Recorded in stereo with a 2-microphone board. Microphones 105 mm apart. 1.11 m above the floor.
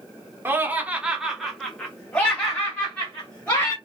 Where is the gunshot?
No gunshot in this recording.